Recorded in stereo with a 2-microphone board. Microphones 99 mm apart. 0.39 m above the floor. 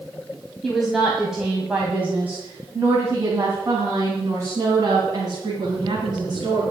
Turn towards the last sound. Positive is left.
turn(degrees=-45)  # may be behind; listen again after turning